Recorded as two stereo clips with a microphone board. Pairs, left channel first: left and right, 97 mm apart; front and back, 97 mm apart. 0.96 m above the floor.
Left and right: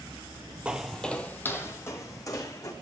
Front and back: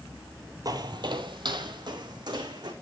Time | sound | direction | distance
0.7 | footsteps | 165° right | 1.2 m